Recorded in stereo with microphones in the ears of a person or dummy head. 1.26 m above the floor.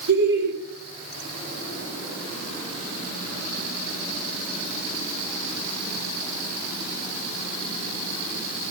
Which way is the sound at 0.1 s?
60° right (ahead or behind).